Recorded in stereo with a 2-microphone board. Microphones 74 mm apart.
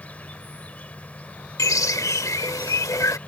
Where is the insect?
20° left (ahead or behind).